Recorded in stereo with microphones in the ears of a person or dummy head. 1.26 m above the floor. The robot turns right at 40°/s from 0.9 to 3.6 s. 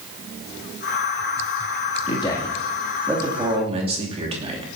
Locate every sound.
2.1 s a man speaking: 30° left (ahead or behind), 2.5 m; by 4.8 s 30° right (ahead or behind), 2.5 m